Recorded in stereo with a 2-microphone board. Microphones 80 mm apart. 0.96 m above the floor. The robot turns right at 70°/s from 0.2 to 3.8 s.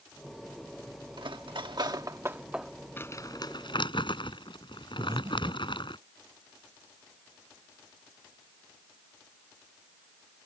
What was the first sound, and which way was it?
Cutlery clinking, 70° right (ahead or behind).